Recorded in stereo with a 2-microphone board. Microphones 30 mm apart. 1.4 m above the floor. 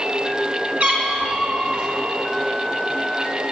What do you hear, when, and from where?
0.8 s a cat meowing: 55° right (ahead or behind), 3 m; by 1.9 s 40° right (ahead or behind), 2.5 m